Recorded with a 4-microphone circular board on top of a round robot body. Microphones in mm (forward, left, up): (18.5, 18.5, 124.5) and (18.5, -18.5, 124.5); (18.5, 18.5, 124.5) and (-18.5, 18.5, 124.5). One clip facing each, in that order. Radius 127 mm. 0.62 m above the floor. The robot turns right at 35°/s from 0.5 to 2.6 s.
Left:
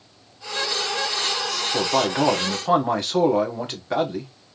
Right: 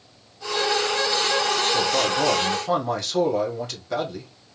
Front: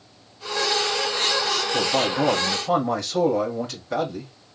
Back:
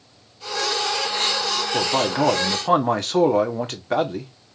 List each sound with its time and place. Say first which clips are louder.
1.7 s a man speaking: left 1 dB, back 2 dB; 115° left, 1.9 m; by 4.3 s 145° left, 1.9 m